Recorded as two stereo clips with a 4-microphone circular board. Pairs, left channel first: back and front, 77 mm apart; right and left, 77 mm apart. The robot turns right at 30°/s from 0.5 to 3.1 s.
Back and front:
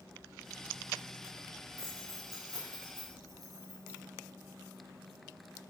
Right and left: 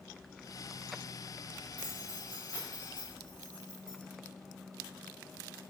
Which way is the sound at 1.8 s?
45° right.